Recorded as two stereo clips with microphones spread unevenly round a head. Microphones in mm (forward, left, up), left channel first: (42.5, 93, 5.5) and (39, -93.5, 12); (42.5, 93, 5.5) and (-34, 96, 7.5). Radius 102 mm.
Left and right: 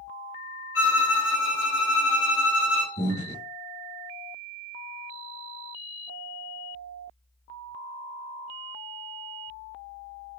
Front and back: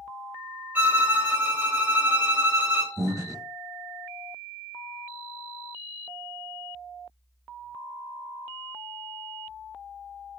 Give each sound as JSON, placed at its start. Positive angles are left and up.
{"t": 0.8, "sound": "a violin", "azimuth_deg": 115, "distance_m": 1.1}
{"t": 3.0, "sound": "breathing", "azimuth_deg": 130, "distance_m": 1.2}